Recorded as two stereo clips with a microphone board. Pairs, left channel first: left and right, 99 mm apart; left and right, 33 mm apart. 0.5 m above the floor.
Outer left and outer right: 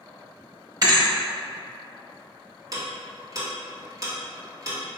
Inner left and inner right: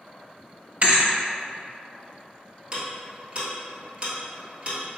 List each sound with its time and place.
0.8 s a thud: 40° right (ahead or behind), 0.8 m
2.7 s ticking: 35° right (ahead or behind), 1.3 m